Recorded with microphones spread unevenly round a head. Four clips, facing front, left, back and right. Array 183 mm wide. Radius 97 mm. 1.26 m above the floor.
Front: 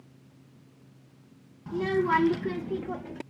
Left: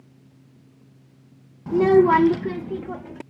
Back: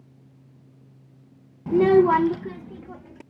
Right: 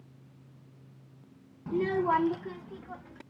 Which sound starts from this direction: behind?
A child speaking, at 1.7 s.